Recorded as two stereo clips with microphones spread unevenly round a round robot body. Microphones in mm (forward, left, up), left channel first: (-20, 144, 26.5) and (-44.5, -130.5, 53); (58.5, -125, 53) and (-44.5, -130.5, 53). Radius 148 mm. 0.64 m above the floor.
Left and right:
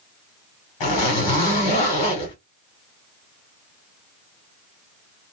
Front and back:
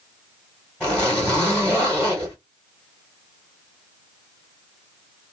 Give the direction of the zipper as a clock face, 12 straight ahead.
9 o'clock.